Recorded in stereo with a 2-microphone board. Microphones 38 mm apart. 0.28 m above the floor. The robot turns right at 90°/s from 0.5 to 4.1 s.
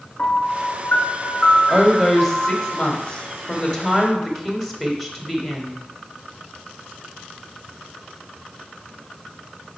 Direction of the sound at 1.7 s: 20° right (ahead or behind).